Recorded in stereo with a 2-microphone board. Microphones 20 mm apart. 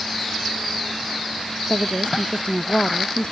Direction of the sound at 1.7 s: 75° left (ahead or behind).